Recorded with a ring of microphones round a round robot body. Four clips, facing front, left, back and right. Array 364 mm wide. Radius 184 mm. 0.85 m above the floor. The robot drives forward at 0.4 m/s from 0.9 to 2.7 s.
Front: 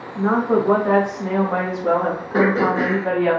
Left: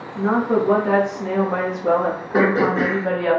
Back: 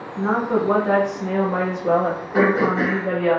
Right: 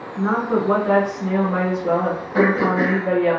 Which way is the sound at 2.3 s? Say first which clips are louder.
Even, even; 80° left.